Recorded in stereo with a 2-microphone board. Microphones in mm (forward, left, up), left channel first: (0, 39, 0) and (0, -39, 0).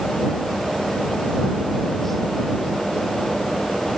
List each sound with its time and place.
Only background noise.